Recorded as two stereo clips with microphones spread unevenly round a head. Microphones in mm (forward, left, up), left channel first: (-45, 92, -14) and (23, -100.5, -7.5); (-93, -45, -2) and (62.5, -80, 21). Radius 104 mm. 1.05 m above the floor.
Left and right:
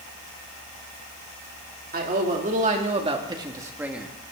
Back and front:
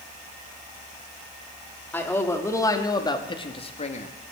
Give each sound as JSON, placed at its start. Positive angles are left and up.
{"t": 1.9, "sound": "a man speaking", "azimuth_deg": -115, "distance_m": 3.0}